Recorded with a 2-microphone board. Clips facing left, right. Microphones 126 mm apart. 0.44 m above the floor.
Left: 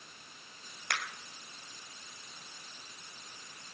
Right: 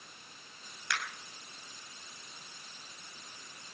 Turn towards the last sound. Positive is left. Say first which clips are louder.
# right 1 dB
turn(degrees=50)  # may be behind; listen again after turning